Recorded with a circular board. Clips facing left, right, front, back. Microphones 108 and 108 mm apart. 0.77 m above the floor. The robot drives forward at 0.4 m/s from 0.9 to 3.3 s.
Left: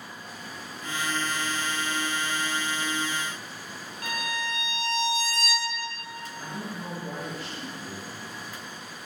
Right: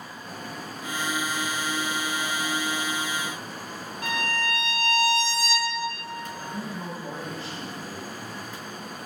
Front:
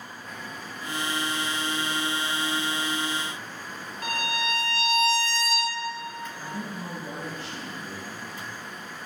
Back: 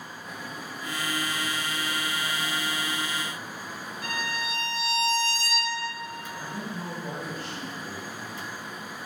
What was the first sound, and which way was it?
A violin, 30° right.